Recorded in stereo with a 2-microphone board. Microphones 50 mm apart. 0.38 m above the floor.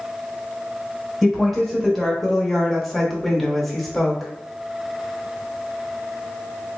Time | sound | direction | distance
1.2 | a woman speaking | 5° left (ahead or behind) | 1.2 m